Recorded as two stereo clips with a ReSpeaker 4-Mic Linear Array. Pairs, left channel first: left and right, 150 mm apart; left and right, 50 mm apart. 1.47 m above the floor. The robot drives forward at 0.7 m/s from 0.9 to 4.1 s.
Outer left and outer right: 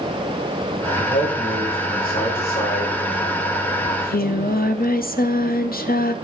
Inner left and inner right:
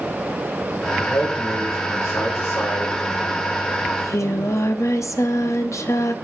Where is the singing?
70° left (ahead or behind), 0.7 m; by 6.2 s 80° left, 0.6 m.